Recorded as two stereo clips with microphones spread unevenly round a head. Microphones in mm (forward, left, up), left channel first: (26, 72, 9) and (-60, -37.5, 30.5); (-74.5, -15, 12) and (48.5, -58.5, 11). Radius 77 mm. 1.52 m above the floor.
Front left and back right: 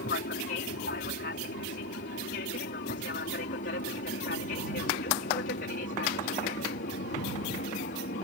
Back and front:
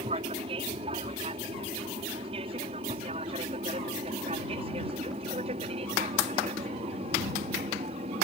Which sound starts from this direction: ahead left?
An aircraft, at 0.0 s.